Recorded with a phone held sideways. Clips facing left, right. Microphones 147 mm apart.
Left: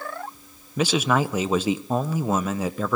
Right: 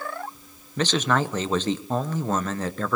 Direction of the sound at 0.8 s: 10° left (ahead or behind).